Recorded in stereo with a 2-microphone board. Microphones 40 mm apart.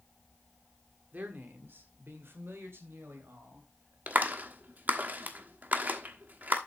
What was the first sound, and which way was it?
A man speaking, 45° right (ahead or behind).